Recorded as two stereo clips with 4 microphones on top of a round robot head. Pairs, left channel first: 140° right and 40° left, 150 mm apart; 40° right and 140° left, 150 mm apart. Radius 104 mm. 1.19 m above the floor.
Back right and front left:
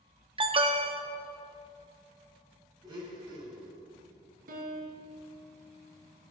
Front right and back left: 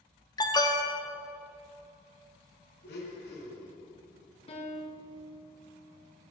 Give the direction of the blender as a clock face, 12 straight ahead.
1 o'clock.